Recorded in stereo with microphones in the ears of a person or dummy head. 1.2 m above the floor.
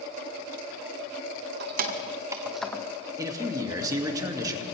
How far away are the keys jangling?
About 0.9 m.